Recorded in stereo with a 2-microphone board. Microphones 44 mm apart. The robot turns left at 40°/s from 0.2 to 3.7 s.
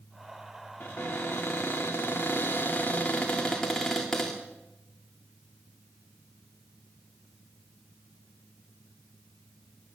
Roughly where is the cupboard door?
Behind left.